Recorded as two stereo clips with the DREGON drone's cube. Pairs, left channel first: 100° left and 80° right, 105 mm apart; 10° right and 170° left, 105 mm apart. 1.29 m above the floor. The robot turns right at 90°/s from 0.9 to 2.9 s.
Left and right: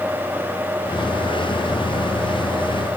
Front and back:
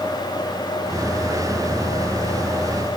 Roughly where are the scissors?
I don't hear scissors.